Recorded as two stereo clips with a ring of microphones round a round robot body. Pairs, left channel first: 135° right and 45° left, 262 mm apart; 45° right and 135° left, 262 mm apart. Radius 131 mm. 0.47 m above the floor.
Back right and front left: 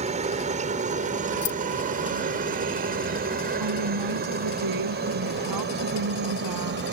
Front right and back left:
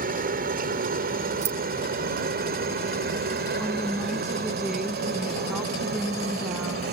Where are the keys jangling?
170° right.